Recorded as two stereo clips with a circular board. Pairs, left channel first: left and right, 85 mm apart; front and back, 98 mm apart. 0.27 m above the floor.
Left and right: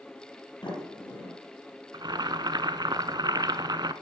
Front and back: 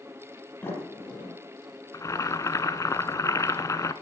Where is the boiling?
55° right, 0.7 m.